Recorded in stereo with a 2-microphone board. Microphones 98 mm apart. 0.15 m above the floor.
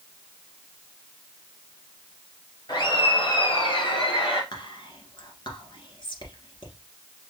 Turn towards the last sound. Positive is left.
turn(degrees=55)  # may be behind; listen again after turning